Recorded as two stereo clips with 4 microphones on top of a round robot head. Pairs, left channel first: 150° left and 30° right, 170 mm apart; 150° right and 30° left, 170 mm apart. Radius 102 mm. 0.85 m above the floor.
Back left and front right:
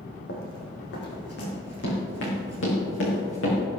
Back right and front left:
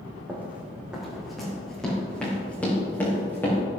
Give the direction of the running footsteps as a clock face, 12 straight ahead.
8 o'clock.